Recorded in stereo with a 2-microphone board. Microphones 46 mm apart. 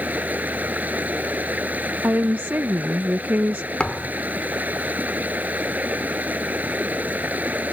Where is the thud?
20° left (ahead or behind).